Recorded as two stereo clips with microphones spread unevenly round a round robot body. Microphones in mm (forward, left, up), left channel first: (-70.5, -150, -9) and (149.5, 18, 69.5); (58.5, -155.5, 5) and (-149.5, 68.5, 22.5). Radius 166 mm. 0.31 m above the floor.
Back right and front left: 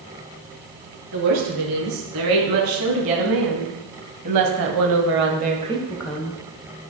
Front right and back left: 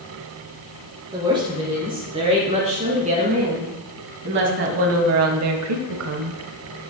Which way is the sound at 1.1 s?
55° left.